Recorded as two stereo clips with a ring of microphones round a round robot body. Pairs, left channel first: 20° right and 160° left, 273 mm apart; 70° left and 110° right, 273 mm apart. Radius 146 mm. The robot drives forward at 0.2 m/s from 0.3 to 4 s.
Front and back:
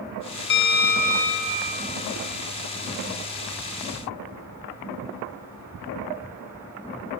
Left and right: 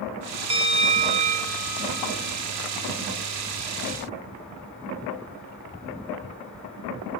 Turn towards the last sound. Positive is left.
turn(degrees=-145)